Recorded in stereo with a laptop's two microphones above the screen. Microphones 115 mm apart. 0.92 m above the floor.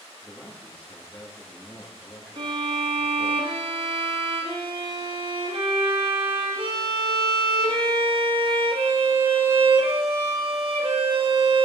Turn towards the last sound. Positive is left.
turn(degrees=-50)  # may be behind; listen again after turning